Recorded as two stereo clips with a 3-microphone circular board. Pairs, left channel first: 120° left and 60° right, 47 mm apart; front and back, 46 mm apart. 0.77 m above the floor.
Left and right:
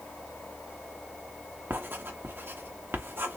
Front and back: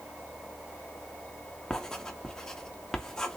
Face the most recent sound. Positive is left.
turn(degrees=-75)